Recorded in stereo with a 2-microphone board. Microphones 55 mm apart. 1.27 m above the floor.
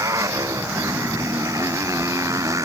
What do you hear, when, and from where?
0.0 s a motorcycle: 85° right